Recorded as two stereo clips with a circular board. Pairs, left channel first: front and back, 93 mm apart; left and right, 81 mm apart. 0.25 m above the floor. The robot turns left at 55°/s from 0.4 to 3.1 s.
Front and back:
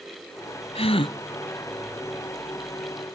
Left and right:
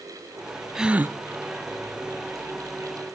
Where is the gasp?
5° right, 0.6 m; by 1.2 s 30° right, 0.6 m.